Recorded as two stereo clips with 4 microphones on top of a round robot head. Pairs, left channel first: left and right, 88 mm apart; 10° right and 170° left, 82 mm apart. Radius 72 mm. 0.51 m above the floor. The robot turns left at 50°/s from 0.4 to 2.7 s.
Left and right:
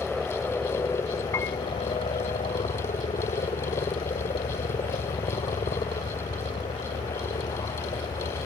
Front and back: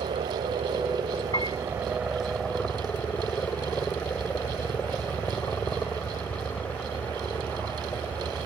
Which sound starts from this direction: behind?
A helicopter, at 0.0 s.